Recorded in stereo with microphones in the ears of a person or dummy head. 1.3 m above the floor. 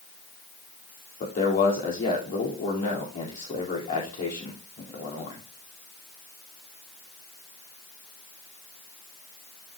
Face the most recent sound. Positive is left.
turn(degrees=40)  # may be behind; listen again after turning